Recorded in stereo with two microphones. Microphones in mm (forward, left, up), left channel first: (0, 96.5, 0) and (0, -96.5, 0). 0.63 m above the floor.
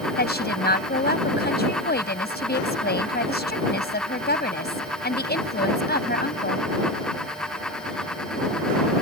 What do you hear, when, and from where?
0.2 s a woman speaking: 60° left (ahead or behind)